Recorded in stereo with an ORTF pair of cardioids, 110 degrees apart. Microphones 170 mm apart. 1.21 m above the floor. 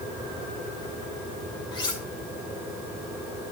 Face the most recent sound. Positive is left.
turn(degrees=25)